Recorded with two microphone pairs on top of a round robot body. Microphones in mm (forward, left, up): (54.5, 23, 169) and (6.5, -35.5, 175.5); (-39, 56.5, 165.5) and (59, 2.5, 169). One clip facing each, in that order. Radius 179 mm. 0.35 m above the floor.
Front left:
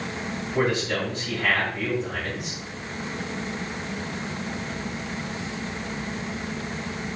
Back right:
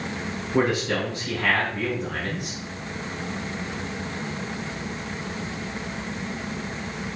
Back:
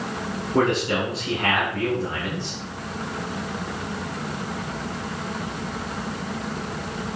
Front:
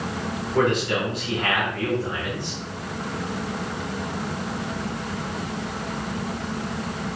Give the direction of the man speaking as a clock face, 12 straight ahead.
5 o'clock.